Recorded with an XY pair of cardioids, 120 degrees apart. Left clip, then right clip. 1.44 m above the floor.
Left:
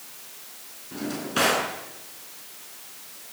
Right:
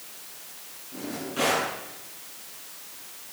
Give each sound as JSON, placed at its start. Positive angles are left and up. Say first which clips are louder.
{"t": 0.9, "sound": "a drawer", "louder": "left 5 dB", "azimuth_deg": 70, "distance_m": 6.5}